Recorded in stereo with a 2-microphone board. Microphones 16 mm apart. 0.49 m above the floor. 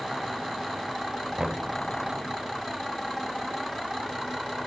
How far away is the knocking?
About 1.5 m.